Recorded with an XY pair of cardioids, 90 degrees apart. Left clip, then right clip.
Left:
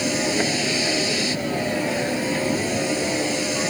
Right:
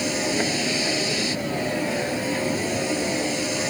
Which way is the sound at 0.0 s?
10° left.